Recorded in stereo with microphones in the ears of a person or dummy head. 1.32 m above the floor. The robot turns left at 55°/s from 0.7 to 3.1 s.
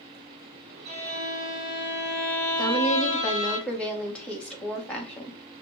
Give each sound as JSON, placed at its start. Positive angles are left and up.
{"t": 0.8, "sound": "a violin", "azimuth_deg": -100, "distance_m": 2.5}
{"t": 2.6, "sound": "a woman speaking", "side_deg": -25, "distance_m": 1.1}